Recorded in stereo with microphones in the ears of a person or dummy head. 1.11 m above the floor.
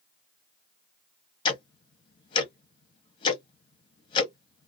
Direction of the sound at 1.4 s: 30° left (ahead or behind).